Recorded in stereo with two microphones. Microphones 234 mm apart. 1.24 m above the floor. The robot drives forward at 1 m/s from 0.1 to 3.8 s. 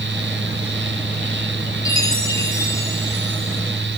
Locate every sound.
1.9 s a chime: 15° left (ahead or behind), 5 m; by 3.6 s 10° left (ahead or behind), 7 m